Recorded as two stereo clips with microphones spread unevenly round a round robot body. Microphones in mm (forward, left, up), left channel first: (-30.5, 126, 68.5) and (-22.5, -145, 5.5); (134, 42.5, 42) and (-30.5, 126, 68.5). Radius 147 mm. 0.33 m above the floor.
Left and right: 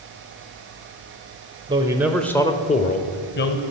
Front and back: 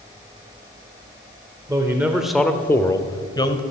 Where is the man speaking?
125° right, 1.3 m; by 3.6 s 35° left, 2.0 m.